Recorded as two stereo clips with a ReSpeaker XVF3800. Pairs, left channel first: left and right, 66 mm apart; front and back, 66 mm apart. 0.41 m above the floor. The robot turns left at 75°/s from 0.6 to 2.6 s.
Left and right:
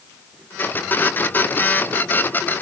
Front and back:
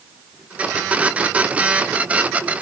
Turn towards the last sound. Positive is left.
No sound to turn to.